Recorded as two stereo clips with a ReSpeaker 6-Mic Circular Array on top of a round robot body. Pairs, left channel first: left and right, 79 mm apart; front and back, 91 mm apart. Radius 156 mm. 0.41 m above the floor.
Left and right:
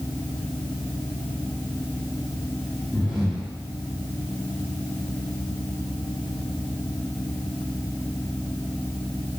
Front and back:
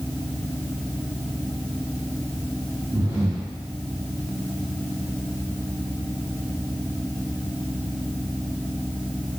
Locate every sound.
2.9 s breathing: 170° right, 1.5 m